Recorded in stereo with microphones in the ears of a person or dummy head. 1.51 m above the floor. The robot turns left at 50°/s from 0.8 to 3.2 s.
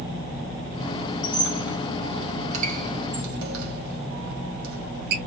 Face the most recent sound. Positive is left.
turn(degrees=-65)  # may be behind; listen again after turning